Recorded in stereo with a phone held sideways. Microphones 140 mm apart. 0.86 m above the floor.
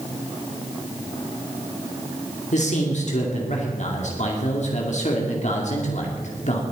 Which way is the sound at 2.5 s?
60° left (ahead or behind).